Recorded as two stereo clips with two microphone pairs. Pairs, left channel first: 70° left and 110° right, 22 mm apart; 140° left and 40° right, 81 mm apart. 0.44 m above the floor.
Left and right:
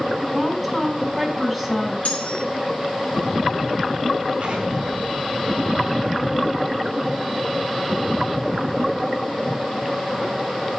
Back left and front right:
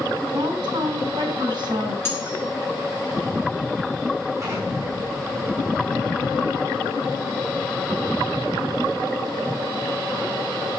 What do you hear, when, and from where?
0.3 s a woman speaking: 25° right, 3 m
2.0 s cutlery clinking: 80° left, 4 m
4.4 s an explosion: 85° right, 4.5 m